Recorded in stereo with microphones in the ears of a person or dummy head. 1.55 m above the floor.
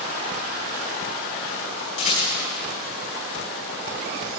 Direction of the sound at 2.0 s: 35° left (ahead or behind).